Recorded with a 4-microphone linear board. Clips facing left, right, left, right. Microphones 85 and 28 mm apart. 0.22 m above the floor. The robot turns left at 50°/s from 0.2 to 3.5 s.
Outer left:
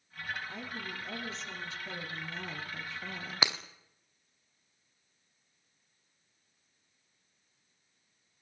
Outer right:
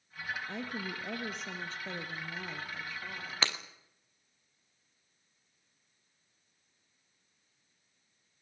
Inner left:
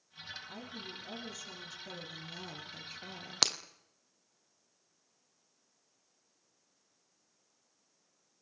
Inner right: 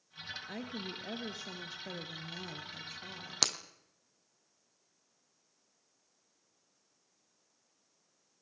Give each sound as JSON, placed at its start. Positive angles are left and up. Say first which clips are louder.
{"t": 0.5, "sound": "a woman speaking", "louder": "outer right 3 dB, inner right 4 dB", "azimuth_deg": -80, "distance_m": 3.5}
{"t": 3.4, "sound": "breaking glass", "louder": "outer left 2 dB, inner left 2 dB", "side_deg": 10, "distance_m": 1.4}